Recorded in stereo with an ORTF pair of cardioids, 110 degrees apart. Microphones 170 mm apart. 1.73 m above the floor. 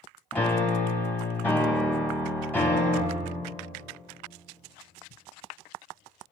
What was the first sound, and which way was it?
A piano, 10° left.